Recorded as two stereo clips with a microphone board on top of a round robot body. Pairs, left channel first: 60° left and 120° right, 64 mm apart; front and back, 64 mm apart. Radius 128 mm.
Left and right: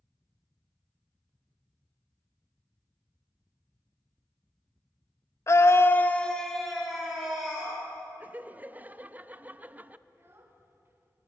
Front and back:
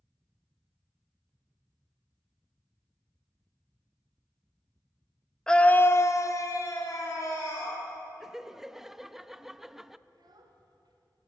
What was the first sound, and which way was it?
A scream, 75° left.